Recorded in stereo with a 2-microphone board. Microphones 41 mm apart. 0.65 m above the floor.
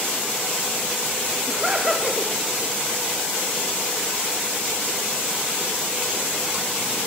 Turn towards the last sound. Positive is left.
turn(degrees=-15)  # may be behind; listen again after turning